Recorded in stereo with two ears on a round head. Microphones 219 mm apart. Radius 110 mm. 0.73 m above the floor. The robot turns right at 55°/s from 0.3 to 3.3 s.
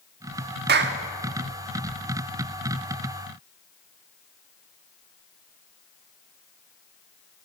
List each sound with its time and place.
0.7 s a clap: 40° right (ahead or behind), 1.4 m; by 1.0 s 55° right (ahead or behind), 1.4 m